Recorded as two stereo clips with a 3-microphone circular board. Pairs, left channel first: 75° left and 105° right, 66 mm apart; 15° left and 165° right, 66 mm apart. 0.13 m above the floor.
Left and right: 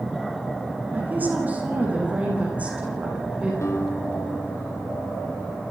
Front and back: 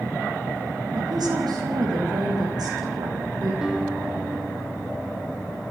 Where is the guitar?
120° left, 3 m.